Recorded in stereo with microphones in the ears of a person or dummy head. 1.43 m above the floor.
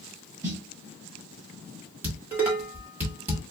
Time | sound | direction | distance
0.4 | a snare drum | 15° right (ahead or behind) | 2.5 m
2.0 | dishes clattering | 10° right (ahead or behind) | 1.4 m